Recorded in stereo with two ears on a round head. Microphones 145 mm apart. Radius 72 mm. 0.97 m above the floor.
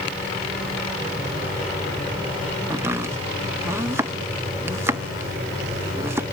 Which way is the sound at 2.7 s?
15° right (ahead or behind).